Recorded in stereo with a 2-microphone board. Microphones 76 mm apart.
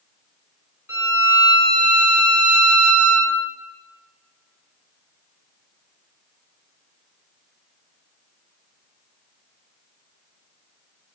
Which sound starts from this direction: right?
A violin, at 0.9 s.